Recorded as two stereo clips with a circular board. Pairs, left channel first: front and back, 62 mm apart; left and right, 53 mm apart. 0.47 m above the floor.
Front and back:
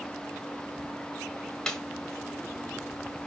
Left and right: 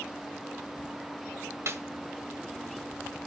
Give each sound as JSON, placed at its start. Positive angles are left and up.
{"t": 1.7, "sound": "a snare drum", "azimuth_deg": -75, "distance_m": 1.7}